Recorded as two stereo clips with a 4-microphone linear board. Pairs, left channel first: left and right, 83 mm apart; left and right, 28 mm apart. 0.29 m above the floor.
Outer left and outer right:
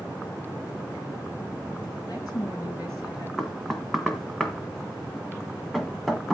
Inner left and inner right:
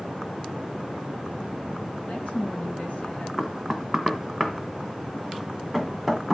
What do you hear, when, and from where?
2.0 s a woman speaking: 50° left (ahead or behind), 4.5 m
3.4 s knocking: centre (ahead or behind), 1.5 m